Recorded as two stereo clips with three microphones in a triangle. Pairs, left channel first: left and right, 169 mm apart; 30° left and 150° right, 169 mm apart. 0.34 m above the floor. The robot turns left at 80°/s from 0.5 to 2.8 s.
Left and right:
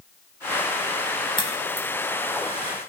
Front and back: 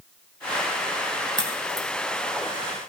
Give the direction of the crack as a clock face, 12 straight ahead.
7 o'clock.